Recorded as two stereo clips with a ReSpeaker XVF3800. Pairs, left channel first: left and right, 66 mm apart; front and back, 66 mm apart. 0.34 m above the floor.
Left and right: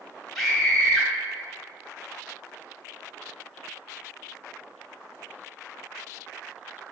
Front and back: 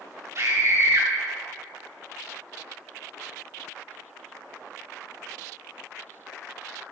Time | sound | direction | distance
0.3 | a scream | straight behind | 2 m